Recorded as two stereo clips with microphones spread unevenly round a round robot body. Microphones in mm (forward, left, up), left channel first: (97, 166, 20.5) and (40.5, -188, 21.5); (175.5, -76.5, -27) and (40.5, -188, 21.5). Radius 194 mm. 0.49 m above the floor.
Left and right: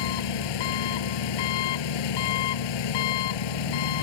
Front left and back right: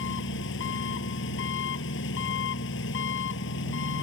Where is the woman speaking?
I don't hear a woman speaking.